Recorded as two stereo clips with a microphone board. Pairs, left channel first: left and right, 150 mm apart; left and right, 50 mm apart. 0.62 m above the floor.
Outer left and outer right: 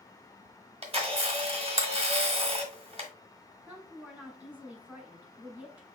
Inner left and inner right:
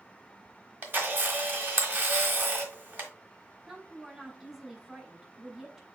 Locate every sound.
0.8 s a camera shutter: 40° right (ahead or behind), 1.1 m
3.7 s a woman speaking: 10° right (ahead or behind), 1.3 m